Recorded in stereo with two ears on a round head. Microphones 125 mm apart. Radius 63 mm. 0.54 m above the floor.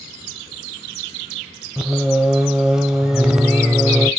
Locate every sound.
1.8 s singing: 5° right (ahead or behind), 0.6 m